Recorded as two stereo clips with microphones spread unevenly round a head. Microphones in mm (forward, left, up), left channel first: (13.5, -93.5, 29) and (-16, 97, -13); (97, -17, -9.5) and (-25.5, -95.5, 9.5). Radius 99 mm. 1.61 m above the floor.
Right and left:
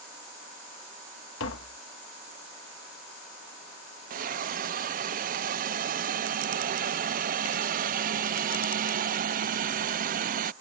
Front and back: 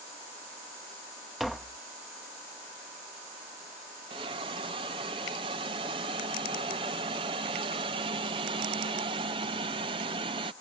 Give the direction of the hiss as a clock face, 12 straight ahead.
7 o'clock.